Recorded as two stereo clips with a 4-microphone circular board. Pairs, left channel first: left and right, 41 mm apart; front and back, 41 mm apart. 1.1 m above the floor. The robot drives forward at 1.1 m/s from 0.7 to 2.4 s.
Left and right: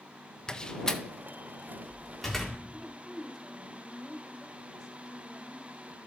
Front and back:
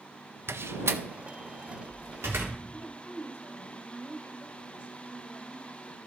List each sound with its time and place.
0.5 s a door slam: 165° left, 0.5 m; by 2.6 s 175° left, 2.5 m
2.7 s a woman speaking: 5° right, 5 m